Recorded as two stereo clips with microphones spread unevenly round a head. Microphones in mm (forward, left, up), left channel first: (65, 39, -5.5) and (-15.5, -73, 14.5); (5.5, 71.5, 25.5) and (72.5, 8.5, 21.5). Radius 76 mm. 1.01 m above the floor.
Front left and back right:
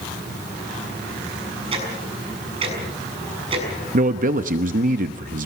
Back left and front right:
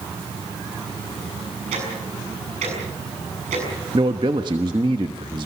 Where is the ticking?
80° right, 6.5 m.